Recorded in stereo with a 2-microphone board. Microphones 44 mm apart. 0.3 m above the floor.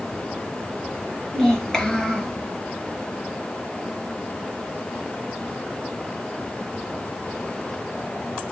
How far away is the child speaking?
About 4 m.